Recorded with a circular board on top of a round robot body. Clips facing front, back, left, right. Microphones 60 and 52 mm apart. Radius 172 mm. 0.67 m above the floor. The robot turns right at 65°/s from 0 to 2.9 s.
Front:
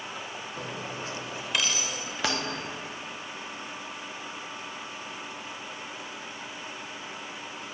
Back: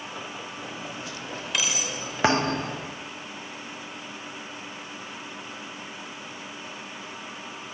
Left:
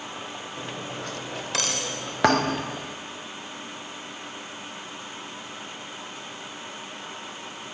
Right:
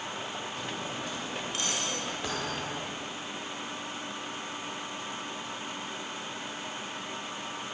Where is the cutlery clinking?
25° left, 1.7 m; by 2.4 s 145° left, 1.7 m.